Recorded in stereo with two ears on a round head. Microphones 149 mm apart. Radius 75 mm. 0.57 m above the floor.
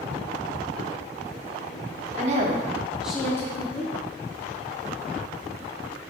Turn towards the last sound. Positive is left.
turn(degrees=35)  # may be behind; listen again after turning